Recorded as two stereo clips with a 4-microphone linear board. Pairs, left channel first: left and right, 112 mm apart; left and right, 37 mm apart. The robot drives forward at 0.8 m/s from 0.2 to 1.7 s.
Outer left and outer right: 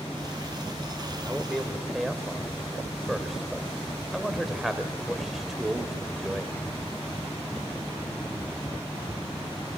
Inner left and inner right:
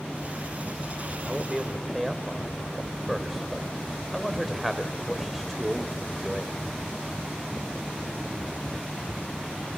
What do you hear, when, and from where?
1.3 s a man speaking: centre (ahead or behind), 1.0 m